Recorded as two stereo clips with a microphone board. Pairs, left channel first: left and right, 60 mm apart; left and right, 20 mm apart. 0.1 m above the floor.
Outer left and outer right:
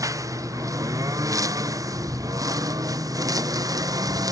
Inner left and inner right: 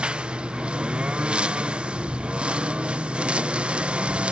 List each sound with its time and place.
0.0 s a lawn mower: 60° right (ahead or behind); by 4.3 s 75° right (ahead or behind)